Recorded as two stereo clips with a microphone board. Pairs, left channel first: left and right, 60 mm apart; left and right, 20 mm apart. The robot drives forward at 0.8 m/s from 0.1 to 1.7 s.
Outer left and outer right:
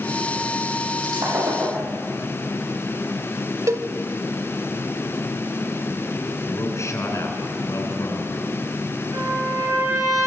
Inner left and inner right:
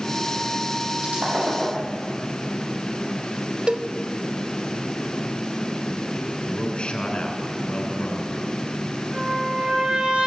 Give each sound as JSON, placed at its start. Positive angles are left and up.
{"t": 1.0, "sound": "breaking glass", "side_deg": -85, "distance_m": 9.5}
{"t": 3.7, "sound": "a cowbell", "side_deg": -60, "distance_m": 0.8}
{"t": 6.5, "sound": "a man speaking", "side_deg": 55, "distance_m": 6.0}
{"t": 9.1, "sound": "a trumpet", "side_deg": -85, "distance_m": 9.0}